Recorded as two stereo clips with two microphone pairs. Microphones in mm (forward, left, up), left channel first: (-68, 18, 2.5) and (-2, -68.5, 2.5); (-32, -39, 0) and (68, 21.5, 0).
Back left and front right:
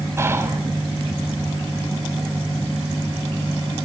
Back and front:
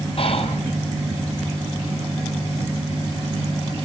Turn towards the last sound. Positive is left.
turn(degrees=-120)